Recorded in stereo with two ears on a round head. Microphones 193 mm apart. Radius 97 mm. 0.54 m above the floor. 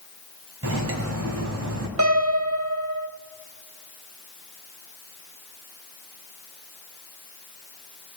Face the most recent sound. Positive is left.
turn(degrees=-75)  # may be behind; listen again after turning